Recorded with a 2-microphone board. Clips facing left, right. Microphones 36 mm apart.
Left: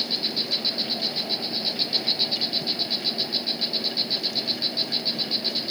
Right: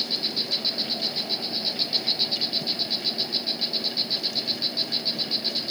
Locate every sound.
0.0 s an insect: 10° left (ahead or behind)